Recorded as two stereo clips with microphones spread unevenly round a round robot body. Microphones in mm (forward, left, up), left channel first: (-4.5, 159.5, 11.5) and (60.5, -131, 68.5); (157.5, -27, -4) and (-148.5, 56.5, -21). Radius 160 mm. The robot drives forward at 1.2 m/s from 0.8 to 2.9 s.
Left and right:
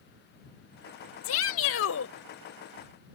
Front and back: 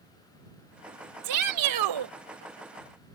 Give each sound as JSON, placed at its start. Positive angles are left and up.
{"t": 1.2, "sound": "a shout", "azimuth_deg": 140}